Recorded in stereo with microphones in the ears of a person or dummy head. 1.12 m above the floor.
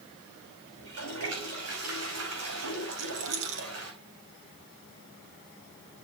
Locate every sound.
0.8 s a toilet flushing: 75° right (ahead or behind), 5 m
2.9 s a rattle: 40° right (ahead or behind), 3.5 m